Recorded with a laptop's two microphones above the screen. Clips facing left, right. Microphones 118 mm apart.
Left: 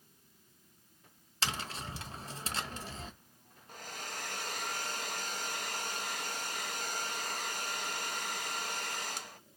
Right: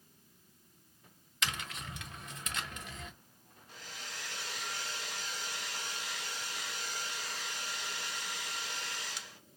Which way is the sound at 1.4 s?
35° left (ahead or behind).